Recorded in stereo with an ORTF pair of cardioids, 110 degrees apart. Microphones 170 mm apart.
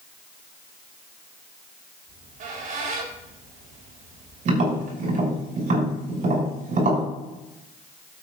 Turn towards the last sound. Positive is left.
turn(degrees=-50)